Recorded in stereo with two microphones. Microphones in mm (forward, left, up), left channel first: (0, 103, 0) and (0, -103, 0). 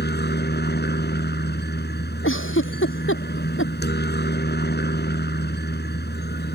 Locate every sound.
0.0 s a helicopter: 55° left (ahead or behind)
2.2 s a giggle: 75° left (ahead or behind)